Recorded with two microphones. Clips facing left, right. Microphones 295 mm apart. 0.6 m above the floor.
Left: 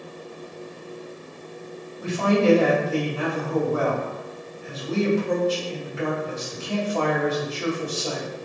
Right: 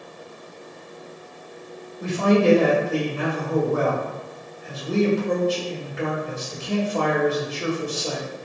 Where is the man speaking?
25° right (ahead or behind), 1.7 m.